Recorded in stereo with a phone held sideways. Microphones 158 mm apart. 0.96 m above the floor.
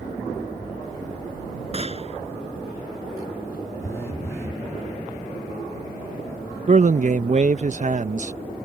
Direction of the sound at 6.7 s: 50° right (ahead or behind).